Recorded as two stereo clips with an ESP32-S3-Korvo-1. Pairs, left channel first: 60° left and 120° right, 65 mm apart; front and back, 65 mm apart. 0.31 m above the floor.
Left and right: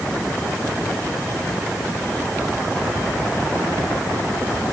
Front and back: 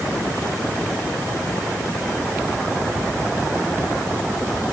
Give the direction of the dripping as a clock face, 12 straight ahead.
I don't hear dripping.